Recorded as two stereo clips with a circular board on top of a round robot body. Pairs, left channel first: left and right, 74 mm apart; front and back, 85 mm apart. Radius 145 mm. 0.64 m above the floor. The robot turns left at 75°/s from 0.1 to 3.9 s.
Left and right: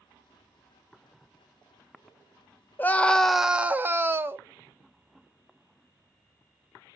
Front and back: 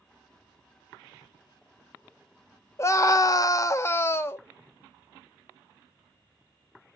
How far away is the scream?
About 0.7 m.